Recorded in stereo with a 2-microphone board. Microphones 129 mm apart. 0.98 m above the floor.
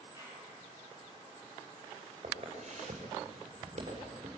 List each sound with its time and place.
0.1 s a clap: 20° right (ahead or behind), 8 m
2.2 s footsteps: 60° right (ahead or behind), 7.5 m; by 4.4 s 50° right (ahead or behind), 8.5 m